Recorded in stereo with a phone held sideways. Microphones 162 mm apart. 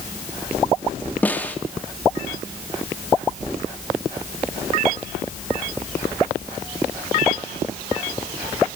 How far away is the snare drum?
About 1.9 m.